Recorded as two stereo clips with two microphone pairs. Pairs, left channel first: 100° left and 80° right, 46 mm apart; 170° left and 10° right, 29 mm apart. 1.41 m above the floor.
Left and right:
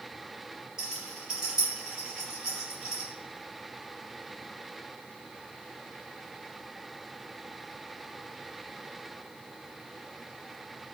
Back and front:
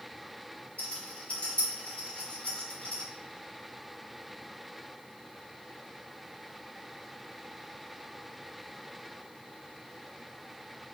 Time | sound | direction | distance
0.8 | a rattle | 150° right | 2.5 m